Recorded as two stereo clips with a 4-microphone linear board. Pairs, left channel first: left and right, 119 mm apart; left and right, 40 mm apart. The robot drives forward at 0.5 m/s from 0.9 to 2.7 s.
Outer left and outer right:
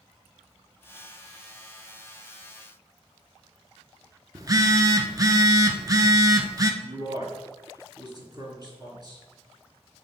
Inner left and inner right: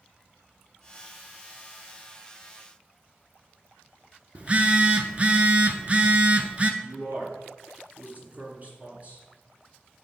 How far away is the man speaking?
About 2.5 m.